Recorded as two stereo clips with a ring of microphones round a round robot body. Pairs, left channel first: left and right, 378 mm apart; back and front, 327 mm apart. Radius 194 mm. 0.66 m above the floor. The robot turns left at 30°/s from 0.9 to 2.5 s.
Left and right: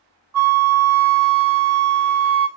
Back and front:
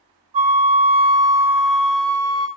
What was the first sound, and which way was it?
A flute, 65° right.